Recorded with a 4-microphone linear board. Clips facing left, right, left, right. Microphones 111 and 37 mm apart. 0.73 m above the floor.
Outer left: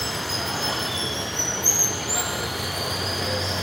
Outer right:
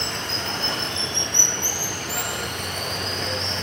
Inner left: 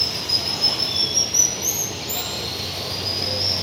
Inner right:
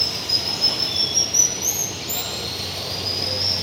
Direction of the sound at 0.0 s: 5° left (ahead or behind).